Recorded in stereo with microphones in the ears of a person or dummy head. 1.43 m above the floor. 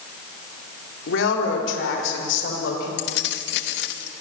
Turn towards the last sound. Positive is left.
turn(degrees=65)  # may be behind; listen again after turning